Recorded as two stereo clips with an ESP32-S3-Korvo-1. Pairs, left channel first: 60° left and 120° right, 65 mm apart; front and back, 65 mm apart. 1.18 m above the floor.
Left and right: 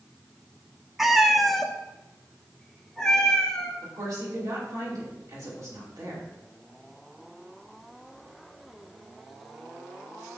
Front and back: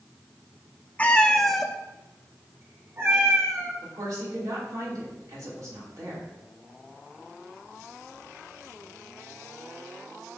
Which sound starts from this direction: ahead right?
A cat meowing, at 1.0 s.